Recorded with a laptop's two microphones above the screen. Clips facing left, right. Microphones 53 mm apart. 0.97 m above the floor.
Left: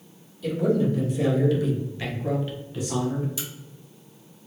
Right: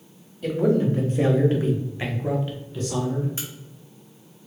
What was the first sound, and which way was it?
A man speaking, 40° right (ahead or behind).